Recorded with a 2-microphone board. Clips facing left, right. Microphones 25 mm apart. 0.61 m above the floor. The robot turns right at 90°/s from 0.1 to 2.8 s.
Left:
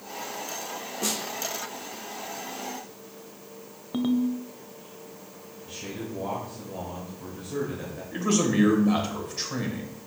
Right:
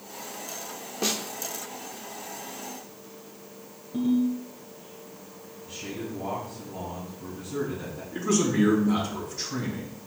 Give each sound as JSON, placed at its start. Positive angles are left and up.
{"t": 1.0, "sound": "a snare drum", "side_deg": -30, "distance_m": 0.8}
{"t": 3.9, "sound": "a ringtone", "side_deg": 65, "distance_m": 0.9}
{"t": 5.7, "sound": "a man speaking", "side_deg": 45, "distance_m": 2.5}
{"t": 8.1, "sound": "a man speaking", "side_deg": 65, "distance_m": 2.5}